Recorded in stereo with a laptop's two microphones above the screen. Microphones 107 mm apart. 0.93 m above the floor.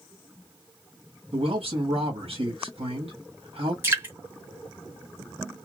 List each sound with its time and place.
1.3 s a man speaking: 65° right (ahead or behind), 1.6 m
3.8 s dripping: 20° right (ahead or behind), 1.0 m